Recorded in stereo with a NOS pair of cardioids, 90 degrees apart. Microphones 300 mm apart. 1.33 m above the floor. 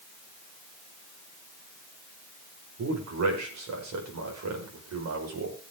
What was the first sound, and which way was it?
A man speaking, 65° right.